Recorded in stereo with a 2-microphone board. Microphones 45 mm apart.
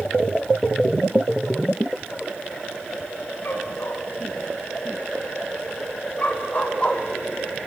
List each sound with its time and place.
3.5 s a dog barking: 50° left (ahead or behind), 5.5 m; by 7.7 s 10° left (ahead or behind), 1.7 m